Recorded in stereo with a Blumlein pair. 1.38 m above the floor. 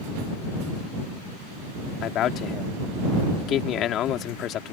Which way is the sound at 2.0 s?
30° left.